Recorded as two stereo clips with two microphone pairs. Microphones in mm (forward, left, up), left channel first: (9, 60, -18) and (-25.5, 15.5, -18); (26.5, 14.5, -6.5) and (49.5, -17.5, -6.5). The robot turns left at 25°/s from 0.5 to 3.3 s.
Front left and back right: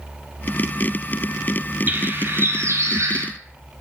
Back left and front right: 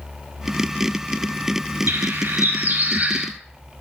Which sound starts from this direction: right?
A bird, at 1.9 s.